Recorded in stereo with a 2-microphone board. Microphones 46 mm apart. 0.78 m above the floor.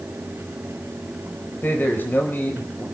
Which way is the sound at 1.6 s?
45° left (ahead or behind).